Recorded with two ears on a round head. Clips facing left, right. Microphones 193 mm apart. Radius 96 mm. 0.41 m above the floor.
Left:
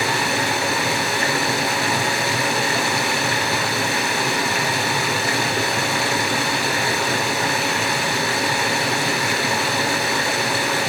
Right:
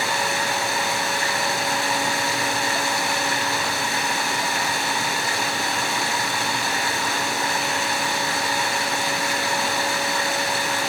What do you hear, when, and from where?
0.0 s running water: 55° left (ahead or behind), 4 m